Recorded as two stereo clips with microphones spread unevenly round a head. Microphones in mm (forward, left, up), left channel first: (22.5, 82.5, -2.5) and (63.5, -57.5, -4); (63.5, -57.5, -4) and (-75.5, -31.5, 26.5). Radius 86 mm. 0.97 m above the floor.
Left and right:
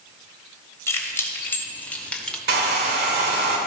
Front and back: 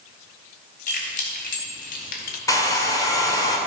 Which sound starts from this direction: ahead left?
Keys jangling, at 0.9 s.